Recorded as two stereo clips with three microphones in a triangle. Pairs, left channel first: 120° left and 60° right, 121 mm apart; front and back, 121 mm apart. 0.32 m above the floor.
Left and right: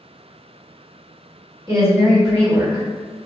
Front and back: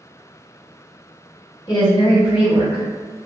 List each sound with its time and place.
1.7 s a woman speaking: 15° right, 1.8 m; by 2.8 s 10° right, 2.5 m